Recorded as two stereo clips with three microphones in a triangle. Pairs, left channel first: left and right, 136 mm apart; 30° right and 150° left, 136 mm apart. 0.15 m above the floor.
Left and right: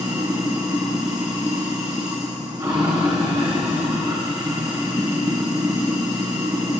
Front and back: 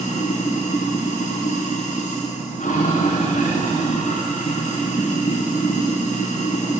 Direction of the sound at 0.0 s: 25° right.